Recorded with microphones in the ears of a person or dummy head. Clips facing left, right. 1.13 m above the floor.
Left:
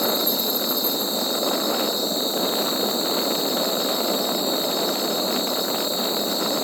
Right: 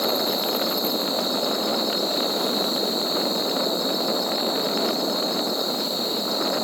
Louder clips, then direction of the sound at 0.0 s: Even; 40° left (ahead or behind).